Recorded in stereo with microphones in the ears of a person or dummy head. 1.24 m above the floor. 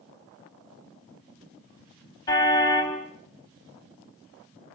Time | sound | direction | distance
2.3 | a car horn | 25° left (ahead or behind) | 5 m